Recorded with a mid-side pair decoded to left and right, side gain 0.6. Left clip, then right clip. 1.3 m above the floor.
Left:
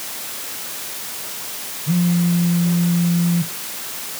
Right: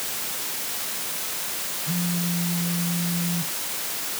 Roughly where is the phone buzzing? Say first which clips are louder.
Left 9 dB; ahead left.